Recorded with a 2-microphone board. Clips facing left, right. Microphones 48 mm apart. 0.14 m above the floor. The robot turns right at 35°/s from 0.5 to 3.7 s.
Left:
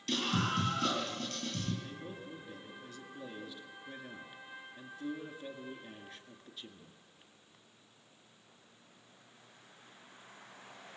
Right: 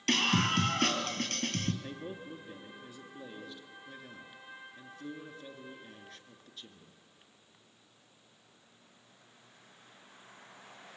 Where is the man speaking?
55° right, 2 m; by 7.0 s 10° left, 2 m.